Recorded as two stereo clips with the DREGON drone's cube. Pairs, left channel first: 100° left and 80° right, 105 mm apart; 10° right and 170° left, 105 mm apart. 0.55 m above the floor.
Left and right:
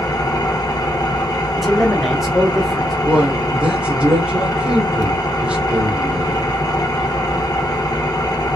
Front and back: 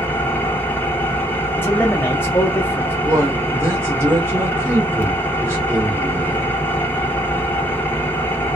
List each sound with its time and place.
0.0 s an engine running: 60° left, 0.7 m
1.6 s a man speaking: 10° left, 0.7 m
3.0 s a man speaking: 145° right, 1.0 m